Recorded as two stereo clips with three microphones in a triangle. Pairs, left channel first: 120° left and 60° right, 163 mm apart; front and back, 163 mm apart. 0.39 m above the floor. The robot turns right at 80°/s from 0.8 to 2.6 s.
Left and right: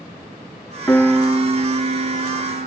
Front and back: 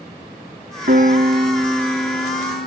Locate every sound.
0.9 s a piano: 170° right, 0.9 m; by 2.7 s 30° right, 0.9 m